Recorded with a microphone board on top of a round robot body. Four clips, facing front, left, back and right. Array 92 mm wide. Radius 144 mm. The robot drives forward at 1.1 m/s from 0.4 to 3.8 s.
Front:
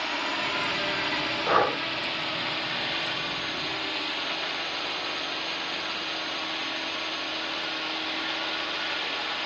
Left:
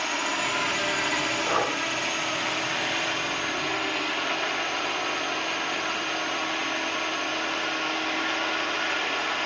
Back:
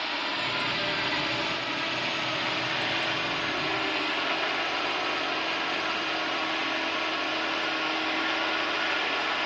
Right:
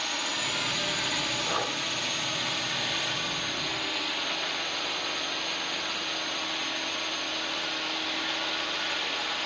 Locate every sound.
0.0 s a drone: 80° left; by 9.5 s 125° left
1.5 s breathing: 20° left